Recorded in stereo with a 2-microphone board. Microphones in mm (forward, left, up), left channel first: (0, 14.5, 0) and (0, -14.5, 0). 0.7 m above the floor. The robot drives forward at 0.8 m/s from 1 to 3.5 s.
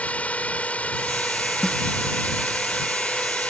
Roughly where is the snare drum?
Left.